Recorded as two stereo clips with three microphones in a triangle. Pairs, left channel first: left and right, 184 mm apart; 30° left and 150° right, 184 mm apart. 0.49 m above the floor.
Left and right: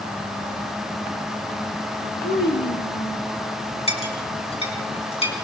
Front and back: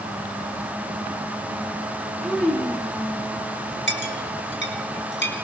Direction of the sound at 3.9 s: 30° left.